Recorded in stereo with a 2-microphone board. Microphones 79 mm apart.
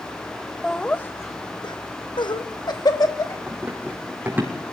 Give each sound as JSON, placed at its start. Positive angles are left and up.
{"t": 0.6, "sound": "laughter", "side_deg": 10, "distance_m": 1.4}
{"t": 3.5, "sound": "running footsteps", "side_deg": -25, "distance_m": 4.0}